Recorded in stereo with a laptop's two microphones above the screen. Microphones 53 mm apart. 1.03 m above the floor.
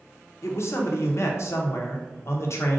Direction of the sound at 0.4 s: 60° left (ahead or behind).